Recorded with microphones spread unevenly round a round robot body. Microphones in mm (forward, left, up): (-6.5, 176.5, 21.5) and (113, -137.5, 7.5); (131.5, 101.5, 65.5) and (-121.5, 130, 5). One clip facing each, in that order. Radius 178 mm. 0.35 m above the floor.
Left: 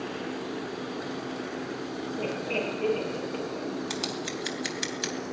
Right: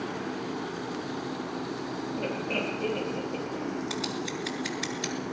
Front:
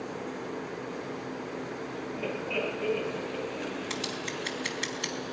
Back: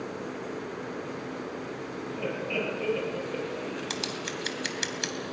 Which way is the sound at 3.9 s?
170° left.